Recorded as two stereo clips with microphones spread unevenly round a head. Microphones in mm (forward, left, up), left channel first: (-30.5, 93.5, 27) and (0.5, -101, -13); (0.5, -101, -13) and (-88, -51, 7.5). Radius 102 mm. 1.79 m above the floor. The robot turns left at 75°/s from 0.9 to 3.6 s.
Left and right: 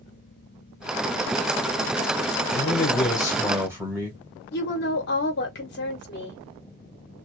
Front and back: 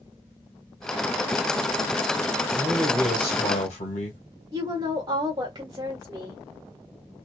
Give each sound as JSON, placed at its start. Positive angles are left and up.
{"t": 2.5, "sound": "a man speaking", "azimuth_deg": 80, "distance_m": 1.4}
{"t": 4.5, "sound": "a woman speaking", "azimuth_deg": 105, "distance_m": 1.3}